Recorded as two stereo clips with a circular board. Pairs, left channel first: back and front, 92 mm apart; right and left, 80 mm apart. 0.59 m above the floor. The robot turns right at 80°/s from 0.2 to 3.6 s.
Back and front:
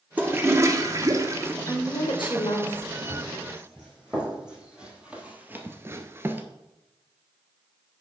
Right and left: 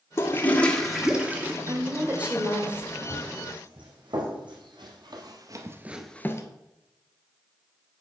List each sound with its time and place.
0.2 s a toilet flushing: 60° right, 0.9 m; by 1.5 s 45° left, 0.9 m
1.7 s a woman speaking: 120° left, 1.8 m; by 2.9 s 145° right, 1.8 m
3.0 s running footsteps: 35° left, 3.5 m; by 6.5 s 60° right, 0.7 m